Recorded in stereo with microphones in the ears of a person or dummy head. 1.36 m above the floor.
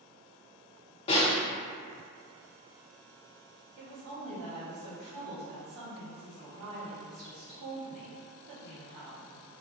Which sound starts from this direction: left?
A snare drum, at 1.1 s.